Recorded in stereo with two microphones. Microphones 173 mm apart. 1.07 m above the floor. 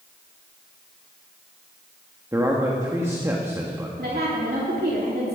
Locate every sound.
2.3 s a man speaking: 15° right (ahead or behind), 1.5 m
4.0 s a woman speaking: 65° right (ahead or behind), 2.5 m